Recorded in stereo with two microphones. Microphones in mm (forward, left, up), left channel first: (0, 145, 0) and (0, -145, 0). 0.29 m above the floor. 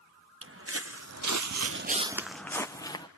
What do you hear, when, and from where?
0.4 s footsteps: 45° right (ahead or behind), 1.6 m; by 3.1 s 15° left (ahead or behind), 1.7 m